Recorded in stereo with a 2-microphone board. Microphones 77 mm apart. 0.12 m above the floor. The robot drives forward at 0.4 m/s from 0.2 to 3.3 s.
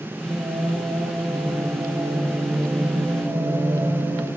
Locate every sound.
0.2 s singing: 65° right (ahead or behind), 2 m